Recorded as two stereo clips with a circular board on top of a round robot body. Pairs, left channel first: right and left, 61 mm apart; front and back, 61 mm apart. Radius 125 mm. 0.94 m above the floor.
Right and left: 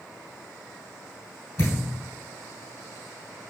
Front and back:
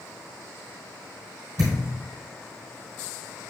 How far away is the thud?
About 1.6 m.